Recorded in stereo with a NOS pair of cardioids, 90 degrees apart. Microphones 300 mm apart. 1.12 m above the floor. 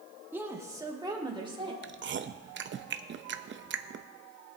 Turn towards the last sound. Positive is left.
turn(degrees=-40)